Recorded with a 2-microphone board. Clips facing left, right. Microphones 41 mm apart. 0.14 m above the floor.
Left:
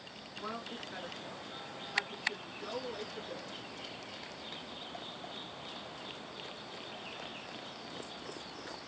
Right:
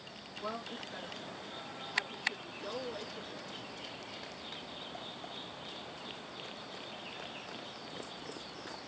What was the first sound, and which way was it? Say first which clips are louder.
A woman speaking: right 1 dB; 15° left (ahead or behind).